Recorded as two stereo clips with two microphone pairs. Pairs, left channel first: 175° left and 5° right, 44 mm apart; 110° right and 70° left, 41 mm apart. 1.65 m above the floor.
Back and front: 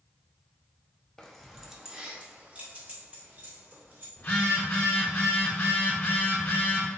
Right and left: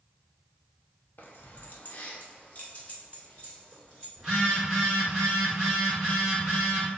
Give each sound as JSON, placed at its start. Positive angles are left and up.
{"t": 1.2, "sound": "keys jangling", "azimuth_deg": -115, "distance_m": 0.7}
{"t": 4.2, "sound": "a phone buzzing", "azimuth_deg": 150, "distance_m": 2.0}